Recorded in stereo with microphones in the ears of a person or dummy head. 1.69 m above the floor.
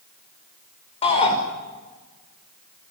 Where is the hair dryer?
No hair dryer in this recording.